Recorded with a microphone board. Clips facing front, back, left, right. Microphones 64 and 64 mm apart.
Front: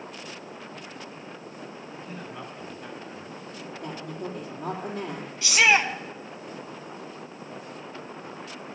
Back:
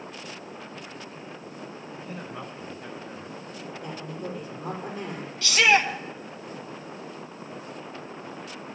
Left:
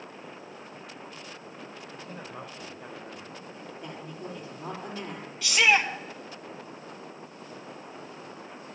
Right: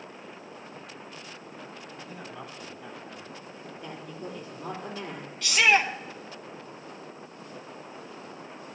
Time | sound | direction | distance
1.9 | a man speaking | 105° left | 5.5 m
3.8 | a woman speaking | 15° left | 4 m
5.4 | a shout | 10° left | 1.0 m